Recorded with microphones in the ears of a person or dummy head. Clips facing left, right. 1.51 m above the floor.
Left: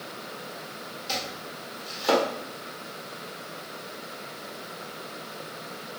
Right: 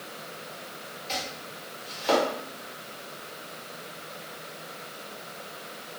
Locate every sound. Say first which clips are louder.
1.1 s chopping: left 1 dB; 70° left (ahead or behind), 1.4 m